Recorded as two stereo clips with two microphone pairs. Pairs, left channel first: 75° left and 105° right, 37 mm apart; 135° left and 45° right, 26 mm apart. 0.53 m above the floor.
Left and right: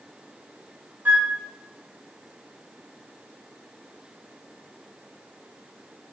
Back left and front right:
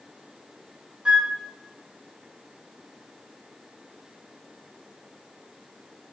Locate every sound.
1.1 s a flute: 90° right, 0.9 m